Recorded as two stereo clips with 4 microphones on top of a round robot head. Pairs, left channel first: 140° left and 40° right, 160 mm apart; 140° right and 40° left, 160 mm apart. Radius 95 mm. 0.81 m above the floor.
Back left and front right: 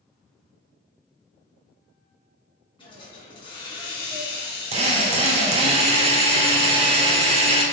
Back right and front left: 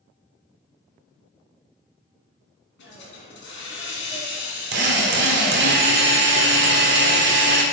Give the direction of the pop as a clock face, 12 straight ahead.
No pop in this recording.